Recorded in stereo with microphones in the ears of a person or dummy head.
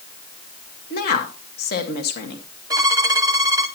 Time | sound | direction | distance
0.9 | a woman speaking | 50° left (ahead or behind) | 1.6 m
2.7 | a violin | 20° right (ahead or behind) | 0.8 m